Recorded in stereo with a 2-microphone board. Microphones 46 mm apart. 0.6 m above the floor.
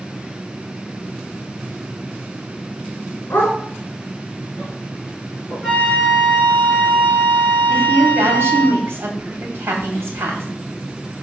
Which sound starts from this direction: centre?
A flute, at 5.6 s.